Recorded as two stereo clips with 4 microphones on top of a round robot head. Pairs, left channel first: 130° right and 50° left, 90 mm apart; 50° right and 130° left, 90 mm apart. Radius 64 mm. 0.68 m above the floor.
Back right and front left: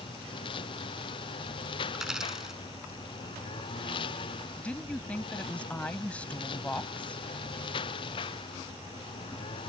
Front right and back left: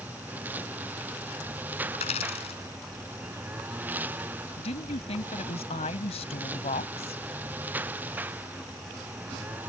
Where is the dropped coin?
35° right.